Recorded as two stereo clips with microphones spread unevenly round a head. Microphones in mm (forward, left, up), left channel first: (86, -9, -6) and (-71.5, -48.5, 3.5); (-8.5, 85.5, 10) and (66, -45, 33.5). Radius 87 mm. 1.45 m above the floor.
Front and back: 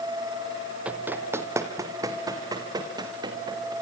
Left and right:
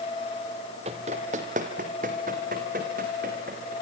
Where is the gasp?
I don't hear a gasp.